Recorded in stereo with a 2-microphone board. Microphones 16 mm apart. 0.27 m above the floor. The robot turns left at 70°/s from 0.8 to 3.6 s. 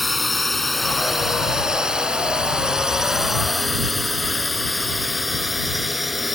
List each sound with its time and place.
0.0 s a drone: centre (ahead or behind); by 6.4 s 10° right (ahead or behind)